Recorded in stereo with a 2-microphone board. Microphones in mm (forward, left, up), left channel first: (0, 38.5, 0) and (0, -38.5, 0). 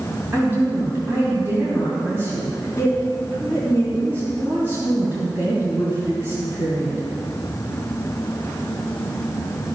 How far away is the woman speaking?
About 2 m.